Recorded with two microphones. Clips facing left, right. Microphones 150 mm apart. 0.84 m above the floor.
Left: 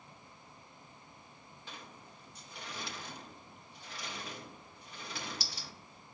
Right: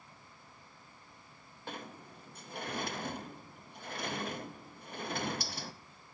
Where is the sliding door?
55° right (ahead or behind), 0.6 m.